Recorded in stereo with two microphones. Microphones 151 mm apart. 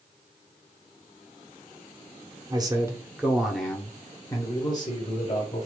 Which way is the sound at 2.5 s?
30° right (ahead or behind).